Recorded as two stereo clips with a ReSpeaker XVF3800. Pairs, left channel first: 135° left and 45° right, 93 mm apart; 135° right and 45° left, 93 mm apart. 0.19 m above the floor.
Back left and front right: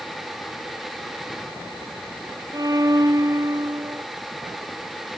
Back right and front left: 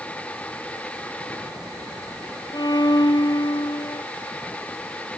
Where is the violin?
90° right.